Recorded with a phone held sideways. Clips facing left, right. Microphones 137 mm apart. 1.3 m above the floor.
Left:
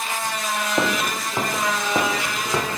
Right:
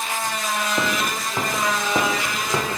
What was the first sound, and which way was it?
Footsteps, 25° left (ahead or behind).